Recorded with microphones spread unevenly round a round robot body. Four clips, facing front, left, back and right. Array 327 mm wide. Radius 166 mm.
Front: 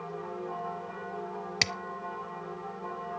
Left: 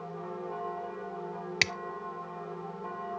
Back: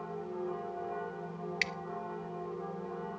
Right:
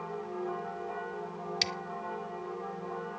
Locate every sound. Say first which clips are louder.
1.6 s scissors: left 6 dB, front 5 dB; 30° left, 0.5 m